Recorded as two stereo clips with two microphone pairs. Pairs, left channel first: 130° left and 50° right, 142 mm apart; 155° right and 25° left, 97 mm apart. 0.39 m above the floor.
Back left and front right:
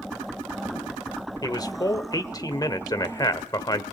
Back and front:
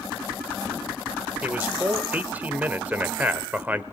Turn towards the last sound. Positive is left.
turn(degrees=85)